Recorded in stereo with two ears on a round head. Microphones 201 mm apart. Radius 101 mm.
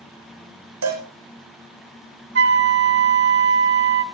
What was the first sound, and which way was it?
A cowbell, 85° right.